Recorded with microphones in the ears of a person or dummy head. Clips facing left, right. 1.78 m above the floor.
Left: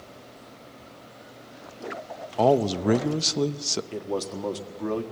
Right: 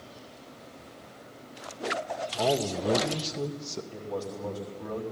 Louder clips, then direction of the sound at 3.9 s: Left 4 dB; 75° left (ahead or behind).